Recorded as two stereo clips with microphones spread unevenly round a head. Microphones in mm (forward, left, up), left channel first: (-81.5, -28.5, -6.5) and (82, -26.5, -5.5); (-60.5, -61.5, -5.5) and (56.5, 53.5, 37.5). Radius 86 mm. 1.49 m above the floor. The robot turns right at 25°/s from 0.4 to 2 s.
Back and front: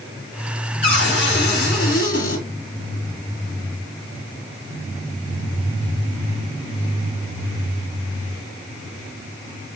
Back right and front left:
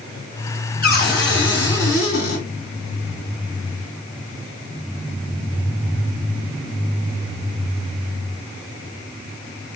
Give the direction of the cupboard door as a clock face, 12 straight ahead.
6 o'clock.